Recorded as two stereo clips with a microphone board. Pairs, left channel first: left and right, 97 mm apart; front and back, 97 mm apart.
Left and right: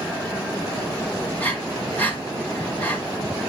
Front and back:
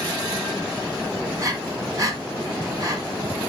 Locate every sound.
1.4 s breathing: 150° left, 2 m